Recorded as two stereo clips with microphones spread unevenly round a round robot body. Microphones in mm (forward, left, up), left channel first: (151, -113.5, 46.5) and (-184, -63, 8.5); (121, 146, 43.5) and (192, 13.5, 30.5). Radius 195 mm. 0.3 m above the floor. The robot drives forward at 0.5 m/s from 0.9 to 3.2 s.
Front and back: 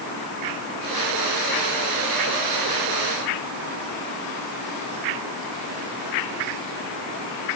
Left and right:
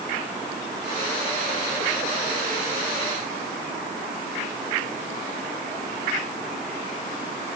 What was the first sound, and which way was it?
Only background noise.